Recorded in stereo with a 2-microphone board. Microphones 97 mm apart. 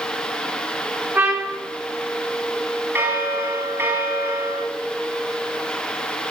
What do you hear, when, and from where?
1.1 s a trumpet: 25° right (ahead or behind), 1.9 m
3.0 s a bell: 25° right (ahead or behind), 1.8 m